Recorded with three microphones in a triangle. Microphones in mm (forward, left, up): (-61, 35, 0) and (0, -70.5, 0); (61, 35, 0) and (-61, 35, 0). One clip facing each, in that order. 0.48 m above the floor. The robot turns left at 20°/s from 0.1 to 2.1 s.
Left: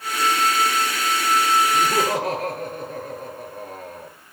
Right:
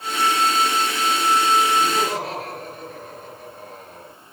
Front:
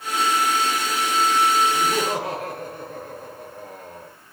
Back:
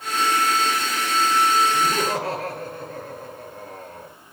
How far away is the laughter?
About 8.5 m.